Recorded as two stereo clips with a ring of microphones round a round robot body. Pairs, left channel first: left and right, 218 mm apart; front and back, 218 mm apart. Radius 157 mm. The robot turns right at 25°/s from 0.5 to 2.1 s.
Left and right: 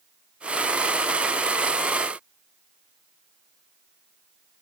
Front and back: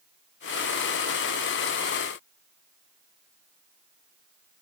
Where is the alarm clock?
I don't hear an alarm clock.